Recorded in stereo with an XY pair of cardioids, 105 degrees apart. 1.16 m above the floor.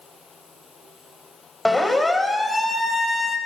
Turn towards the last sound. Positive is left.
turn(degrees=25)